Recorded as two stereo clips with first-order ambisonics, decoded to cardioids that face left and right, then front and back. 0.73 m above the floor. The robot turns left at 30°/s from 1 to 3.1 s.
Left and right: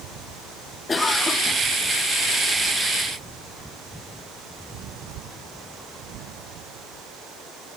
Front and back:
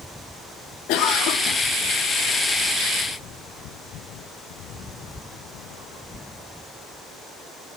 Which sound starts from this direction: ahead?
A cough, at 0.9 s.